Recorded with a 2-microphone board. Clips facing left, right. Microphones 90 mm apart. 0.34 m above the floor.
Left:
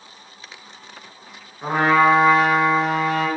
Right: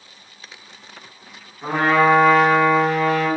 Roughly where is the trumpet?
Left.